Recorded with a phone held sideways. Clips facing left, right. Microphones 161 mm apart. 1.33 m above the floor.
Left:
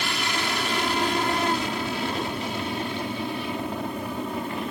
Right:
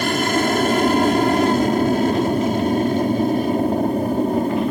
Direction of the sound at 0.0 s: 55° right (ahead or behind).